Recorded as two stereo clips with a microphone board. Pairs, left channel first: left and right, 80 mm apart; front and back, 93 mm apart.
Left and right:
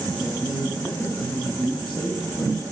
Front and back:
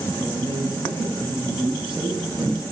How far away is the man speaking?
About 5 m.